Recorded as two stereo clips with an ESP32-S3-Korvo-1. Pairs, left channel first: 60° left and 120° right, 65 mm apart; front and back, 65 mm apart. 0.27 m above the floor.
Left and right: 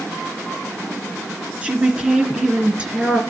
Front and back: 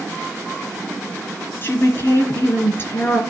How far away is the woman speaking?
About 3 m.